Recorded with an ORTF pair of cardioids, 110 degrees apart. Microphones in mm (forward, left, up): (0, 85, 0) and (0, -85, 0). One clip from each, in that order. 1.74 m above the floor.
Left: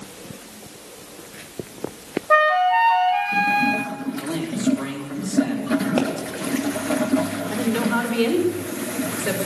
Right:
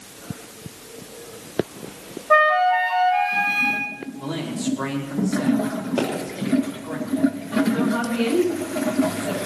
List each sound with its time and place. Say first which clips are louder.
2.3 s a flute: even; 10° left, 1.2 m
4.2 s a man speaking: left 2 dB; 30° left, 5 m
6.0 s a pop: right 1 dB; 40° left, 3 m
7.5 s a woman speaking: left 2 dB; 60° left, 5 m